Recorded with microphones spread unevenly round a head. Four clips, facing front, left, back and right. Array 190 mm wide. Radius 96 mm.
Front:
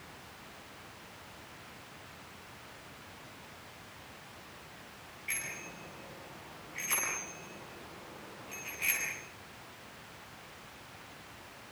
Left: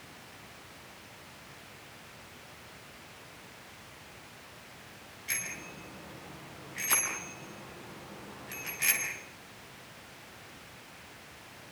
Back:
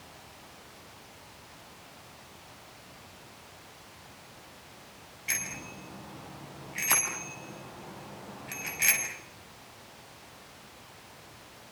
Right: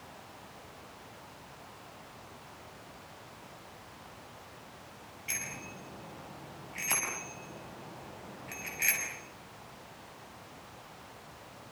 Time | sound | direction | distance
5.3 | a bicycle bell | 160° right | 9 m